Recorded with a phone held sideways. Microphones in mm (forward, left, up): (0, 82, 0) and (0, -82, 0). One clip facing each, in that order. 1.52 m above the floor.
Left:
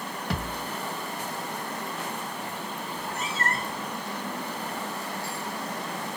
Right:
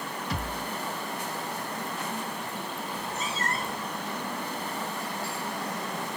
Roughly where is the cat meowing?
Left.